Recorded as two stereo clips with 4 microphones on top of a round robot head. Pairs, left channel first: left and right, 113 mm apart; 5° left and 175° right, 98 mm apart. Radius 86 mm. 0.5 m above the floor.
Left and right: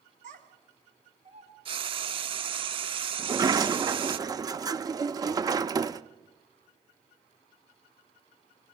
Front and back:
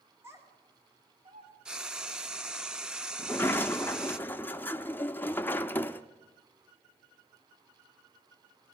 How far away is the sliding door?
About 0.6 m.